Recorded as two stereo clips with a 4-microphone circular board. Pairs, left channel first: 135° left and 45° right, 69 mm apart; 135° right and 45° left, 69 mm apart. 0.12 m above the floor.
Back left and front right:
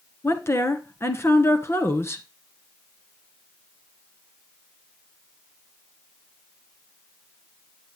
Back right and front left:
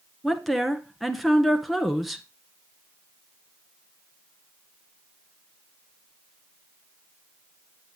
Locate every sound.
0.2 s a woman speaking: 135° left, 1.2 m